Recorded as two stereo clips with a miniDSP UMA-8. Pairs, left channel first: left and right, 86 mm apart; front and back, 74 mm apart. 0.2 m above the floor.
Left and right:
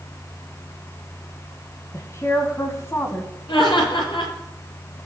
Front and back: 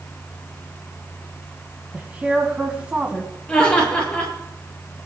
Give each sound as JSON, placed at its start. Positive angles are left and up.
{"t": 1.9, "sound": "a woman speaking", "azimuth_deg": 120, "distance_m": 1.7}
{"t": 3.5, "sound": "laughter", "azimuth_deg": 75, "distance_m": 4.5}